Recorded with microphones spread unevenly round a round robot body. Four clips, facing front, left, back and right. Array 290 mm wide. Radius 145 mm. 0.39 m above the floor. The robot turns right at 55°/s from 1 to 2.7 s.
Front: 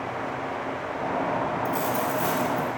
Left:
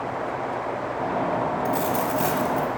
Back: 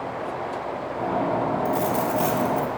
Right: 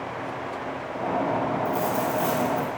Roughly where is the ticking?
I don't hear ticking.